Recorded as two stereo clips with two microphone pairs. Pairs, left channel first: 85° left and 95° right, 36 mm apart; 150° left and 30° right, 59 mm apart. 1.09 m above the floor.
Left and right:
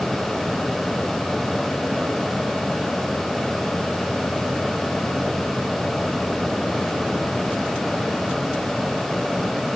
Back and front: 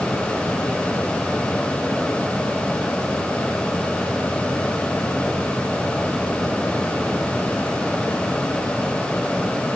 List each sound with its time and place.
Only background noise.